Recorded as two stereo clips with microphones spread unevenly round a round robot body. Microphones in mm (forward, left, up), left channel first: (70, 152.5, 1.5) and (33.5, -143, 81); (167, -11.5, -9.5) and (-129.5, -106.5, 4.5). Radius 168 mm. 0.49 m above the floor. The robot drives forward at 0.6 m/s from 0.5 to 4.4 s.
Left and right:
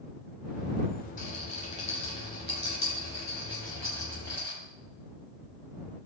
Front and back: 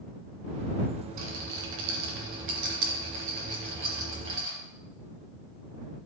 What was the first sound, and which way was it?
A rattle, 150° left.